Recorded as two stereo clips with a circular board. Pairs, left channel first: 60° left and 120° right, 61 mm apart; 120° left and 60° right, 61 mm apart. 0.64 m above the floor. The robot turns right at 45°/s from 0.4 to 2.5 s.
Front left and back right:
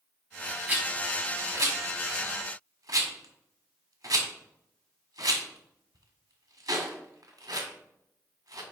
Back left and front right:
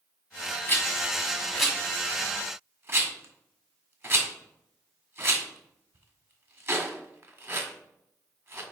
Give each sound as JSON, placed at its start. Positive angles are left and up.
{"t": 0.7, "sound": "a rattle", "azimuth_deg": 170, "distance_m": 1.7}